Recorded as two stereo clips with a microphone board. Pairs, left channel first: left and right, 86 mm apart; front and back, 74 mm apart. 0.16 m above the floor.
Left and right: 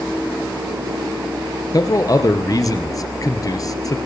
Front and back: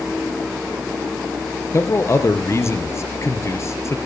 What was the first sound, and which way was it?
A man speaking, 45° left.